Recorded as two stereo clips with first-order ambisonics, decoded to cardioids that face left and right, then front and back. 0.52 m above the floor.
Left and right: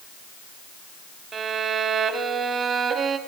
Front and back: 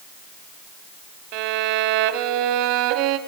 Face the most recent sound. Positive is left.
turn(degrees=-155)